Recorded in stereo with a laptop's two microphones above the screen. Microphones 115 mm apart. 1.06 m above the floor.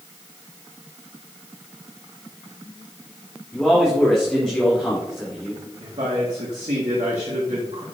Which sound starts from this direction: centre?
A man speaking, at 3.5 s.